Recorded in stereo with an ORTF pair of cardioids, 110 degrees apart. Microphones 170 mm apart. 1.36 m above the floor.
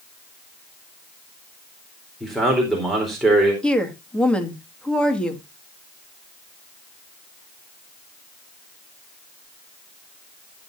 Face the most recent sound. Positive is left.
turn(degrees=5)